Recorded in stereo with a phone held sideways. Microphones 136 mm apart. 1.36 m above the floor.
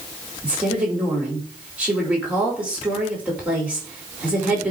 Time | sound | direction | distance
0.4 | a woman speaking | 10° right (ahead or behind) | 4.5 m